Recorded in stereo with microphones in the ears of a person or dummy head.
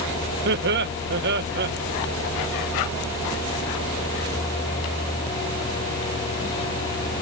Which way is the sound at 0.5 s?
60° right (ahead or behind).